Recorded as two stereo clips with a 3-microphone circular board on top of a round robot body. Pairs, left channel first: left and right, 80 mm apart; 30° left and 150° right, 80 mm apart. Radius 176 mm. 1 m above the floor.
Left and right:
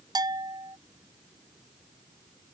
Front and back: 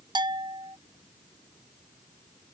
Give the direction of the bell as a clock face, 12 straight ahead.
4 o'clock.